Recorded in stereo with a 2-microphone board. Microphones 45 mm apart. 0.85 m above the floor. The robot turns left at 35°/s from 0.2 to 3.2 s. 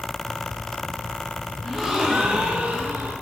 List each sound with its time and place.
1.6 s a gasp: straight ahead, 0.8 m; by 3.1 s 50° right, 0.8 m